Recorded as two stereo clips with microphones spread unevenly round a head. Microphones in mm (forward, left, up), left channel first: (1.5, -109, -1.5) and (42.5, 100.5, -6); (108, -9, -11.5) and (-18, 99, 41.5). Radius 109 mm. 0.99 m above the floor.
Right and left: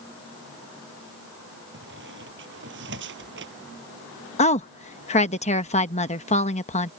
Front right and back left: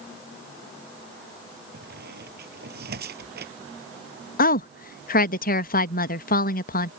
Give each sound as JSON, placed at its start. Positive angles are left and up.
{"t": 1.7, "sound": "a squeak", "azimuth_deg": 120}
{"t": 4.4, "sound": "a woman speaking", "azimuth_deg": -45}